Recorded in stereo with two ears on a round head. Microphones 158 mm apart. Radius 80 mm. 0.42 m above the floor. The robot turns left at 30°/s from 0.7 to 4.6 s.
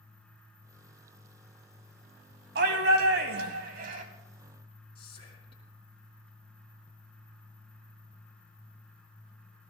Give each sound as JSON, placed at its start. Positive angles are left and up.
{"t": 2.5, "sound": "a shout", "azimuth_deg": -75, "distance_m": 3.0}
{"t": 5.0, "sound": "whispering", "side_deg": 35, "distance_m": 4.5}